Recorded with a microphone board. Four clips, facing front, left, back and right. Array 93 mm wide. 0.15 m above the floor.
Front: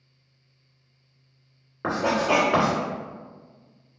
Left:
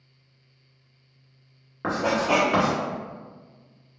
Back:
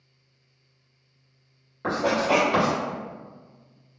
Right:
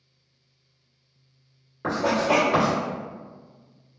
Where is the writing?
40° left, 1.8 m.